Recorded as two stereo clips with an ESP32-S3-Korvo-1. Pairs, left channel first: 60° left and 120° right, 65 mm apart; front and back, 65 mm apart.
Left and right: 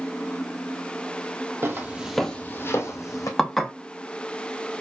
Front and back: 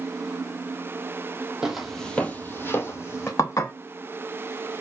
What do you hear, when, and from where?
1.6 s footsteps: 105° right, 1.0 m; by 3.3 s 45° left, 1.6 m
3.4 s dishes clattering: 25° right, 0.8 m